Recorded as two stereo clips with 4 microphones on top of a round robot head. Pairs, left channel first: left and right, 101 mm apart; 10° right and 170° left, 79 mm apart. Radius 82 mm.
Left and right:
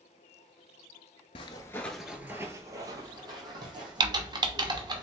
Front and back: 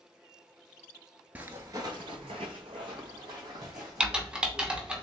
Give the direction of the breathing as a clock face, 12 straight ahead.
No breathing in this recording.